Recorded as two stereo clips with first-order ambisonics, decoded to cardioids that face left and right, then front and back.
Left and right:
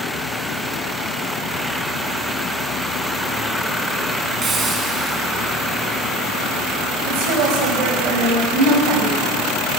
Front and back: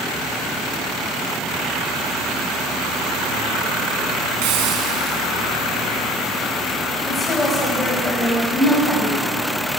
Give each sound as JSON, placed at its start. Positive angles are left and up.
{"t": 4.4, "sound": "a hiss", "azimuth_deg": -160, "distance_m": 2.5}
{"t": 7.1, "sound": "a woman speaking", "azimuth_deg": -80, "distance_m": 6.0}